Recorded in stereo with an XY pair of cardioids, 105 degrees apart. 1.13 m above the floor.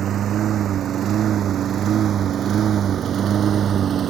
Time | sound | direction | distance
0.0 | a lawn mower | 65° right | ?